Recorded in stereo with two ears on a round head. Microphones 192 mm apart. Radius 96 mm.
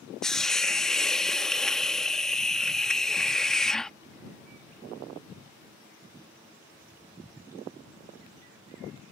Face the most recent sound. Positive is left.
turn(degrees=5)  # may be behind; listen again after turning